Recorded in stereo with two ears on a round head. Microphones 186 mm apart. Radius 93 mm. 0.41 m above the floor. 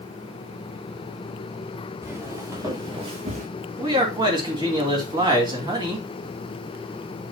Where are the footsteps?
10° right (ahead or behind), 4 m; by 3.5 s 35° right (ahead or behind), 2.5 m.